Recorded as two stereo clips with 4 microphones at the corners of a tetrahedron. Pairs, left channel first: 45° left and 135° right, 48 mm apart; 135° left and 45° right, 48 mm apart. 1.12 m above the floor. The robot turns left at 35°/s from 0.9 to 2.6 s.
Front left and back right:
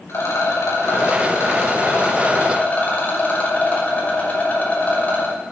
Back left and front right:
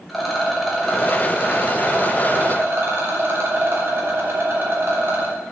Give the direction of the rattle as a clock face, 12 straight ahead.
10 o'clock.